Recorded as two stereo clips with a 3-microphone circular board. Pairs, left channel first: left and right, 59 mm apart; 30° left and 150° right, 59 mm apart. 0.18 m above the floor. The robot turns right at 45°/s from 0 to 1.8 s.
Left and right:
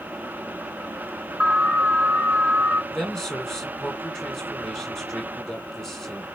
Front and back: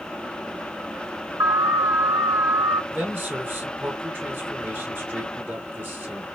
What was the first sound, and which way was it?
An alarm, 165° right.